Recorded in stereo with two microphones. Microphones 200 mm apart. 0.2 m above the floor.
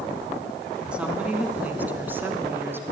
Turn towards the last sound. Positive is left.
turn(degrees=-10)  # may be behind; listen again after turning